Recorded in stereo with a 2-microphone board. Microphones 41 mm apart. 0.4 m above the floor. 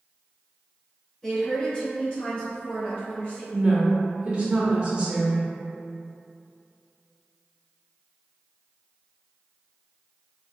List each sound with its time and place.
1.2 s a woman speaking: 20° left (ahead or behind), 1.7 m; by 3.4 s 35° left (ahead or behind), 1.3 m
3.5 s a woman speaking: 30° right (ahead or behind), 0.8 m